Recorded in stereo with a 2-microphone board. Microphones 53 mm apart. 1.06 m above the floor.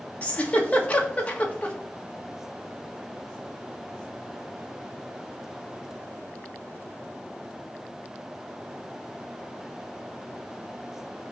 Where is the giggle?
25° left (ahead or behind), 1.6 m.